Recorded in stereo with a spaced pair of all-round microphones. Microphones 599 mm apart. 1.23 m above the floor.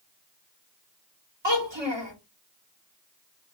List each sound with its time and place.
1.4 s a child speaking: 45° right (ahead or behind), 1.9 m